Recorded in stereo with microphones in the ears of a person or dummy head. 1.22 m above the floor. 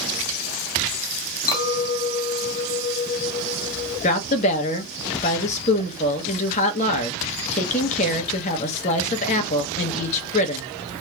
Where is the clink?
20° left (ahead or behind), 1.7 m.